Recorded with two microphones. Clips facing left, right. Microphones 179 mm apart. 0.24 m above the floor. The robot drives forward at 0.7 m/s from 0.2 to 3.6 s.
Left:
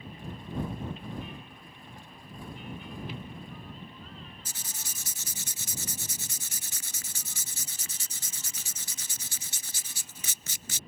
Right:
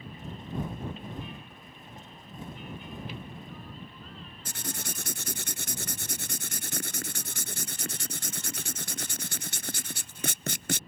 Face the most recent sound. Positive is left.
turn(degrees=-75)  # may be behind; listen again after turning